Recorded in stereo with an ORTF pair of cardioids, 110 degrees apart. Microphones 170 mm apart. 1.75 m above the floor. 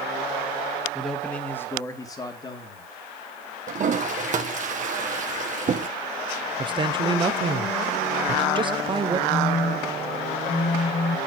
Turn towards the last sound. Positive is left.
turn(degrees=20)